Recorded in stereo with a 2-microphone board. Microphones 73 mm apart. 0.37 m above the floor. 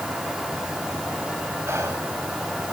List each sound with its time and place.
1.7 s whispering: 40° right (ahead or behind), 2 m